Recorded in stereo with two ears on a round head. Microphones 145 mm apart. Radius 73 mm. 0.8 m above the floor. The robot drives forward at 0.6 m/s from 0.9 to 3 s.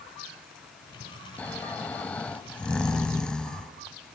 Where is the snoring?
10° left (ahead or behind), 0.6 m; by 3.7 s 5° left (ahead or behind), 0.9 m.